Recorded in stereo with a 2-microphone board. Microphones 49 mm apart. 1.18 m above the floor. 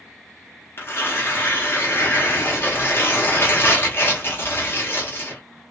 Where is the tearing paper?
50° left (ahead or behind), 0.9 m.